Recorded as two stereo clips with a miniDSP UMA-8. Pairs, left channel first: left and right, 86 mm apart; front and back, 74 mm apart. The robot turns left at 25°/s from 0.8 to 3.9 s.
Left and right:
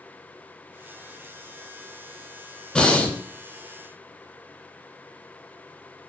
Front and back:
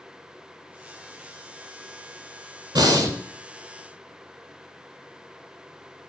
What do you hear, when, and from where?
2.8 s breathing: 170° left, 0.5 m; by 3.2 s 160° left, 0.5 m